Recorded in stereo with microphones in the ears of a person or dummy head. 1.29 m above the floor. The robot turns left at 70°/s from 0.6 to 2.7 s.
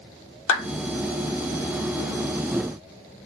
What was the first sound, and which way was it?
A clap, 80° left.